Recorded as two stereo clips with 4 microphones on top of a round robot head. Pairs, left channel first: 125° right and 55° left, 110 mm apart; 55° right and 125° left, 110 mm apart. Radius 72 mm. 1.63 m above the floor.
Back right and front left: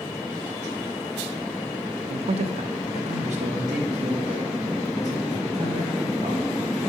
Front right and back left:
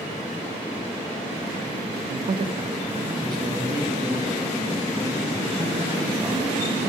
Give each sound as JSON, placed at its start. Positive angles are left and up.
{"t": 2.1, "sound": "a man speaking", "azimuth_deg": 95, "distance_m": 0.5}